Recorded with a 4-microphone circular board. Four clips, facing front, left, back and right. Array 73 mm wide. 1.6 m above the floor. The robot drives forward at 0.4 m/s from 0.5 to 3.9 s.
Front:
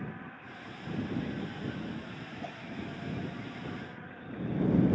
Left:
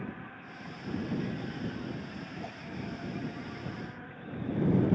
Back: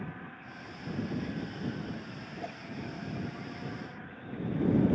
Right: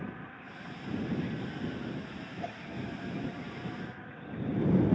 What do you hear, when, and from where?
2.4 s a whoosh: 135° right, 1.8 m